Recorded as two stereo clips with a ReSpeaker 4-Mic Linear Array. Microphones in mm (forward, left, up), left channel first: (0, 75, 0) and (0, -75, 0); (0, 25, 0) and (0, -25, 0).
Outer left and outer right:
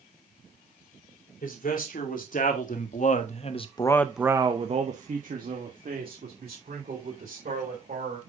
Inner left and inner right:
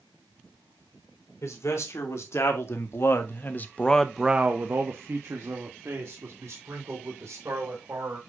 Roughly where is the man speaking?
Left.